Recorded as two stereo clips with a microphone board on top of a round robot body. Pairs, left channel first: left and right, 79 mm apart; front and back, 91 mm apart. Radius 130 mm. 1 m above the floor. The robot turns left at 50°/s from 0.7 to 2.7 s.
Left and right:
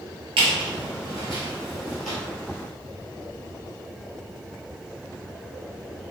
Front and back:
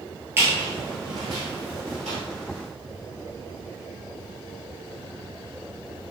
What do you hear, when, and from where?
0.4 s a squeak: 115° right, 1.3 m; by 2.2 s 175° left, 1.3 m